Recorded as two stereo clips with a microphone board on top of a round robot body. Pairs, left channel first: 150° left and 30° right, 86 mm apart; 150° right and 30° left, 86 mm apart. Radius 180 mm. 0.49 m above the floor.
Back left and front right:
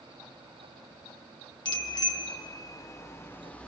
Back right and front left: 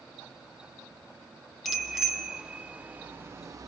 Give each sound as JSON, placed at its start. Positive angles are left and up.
{"t": 1.6, "sound": "a bicycle bell", "azimuth_deg": 120, "distance_m": 2.5}